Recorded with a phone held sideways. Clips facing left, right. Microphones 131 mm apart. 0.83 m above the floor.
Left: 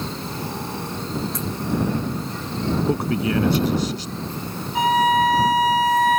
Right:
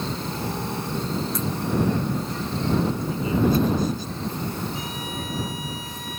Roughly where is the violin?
Left.